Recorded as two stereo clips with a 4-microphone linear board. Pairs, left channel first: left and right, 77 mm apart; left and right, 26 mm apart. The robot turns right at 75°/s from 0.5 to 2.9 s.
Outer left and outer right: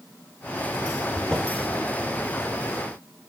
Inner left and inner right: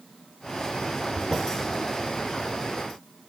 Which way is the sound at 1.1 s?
15° left (ahead or behind).